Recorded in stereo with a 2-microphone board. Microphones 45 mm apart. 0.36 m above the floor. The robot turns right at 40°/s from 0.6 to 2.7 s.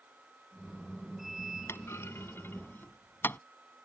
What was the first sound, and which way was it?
A clunk, 70° left (ahead or behind).